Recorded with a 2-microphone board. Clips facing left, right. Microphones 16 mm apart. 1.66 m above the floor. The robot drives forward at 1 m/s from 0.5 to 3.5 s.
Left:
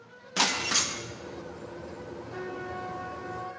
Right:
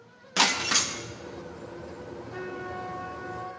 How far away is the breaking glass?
About 0.9 m.